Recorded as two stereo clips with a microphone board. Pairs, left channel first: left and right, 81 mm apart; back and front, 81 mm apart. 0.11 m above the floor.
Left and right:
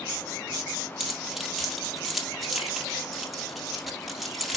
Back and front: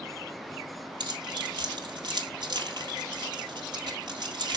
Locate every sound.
1.0 s keys jangling: 5° right, 1.8 m